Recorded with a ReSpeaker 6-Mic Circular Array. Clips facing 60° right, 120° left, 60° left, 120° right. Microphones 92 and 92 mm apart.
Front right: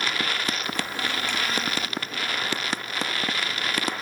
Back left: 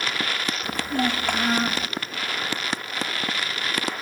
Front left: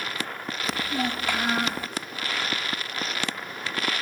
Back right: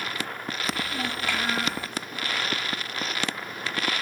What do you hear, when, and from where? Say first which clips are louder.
0.6 s a child speaking: back left 5 dB, front left 3 dB; 130° left, 1.6 m